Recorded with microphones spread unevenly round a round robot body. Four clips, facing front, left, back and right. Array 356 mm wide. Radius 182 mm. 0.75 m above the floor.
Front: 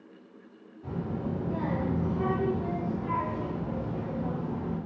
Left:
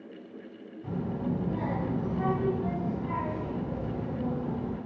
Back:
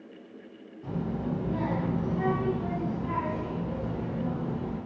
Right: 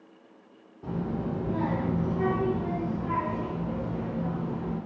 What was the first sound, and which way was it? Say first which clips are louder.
A child speaking: right 1 dB, back 1 dB; 95° right.